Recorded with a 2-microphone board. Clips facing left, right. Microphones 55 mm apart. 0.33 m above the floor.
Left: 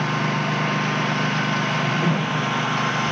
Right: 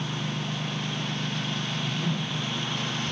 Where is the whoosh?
55° left (ahead or behind).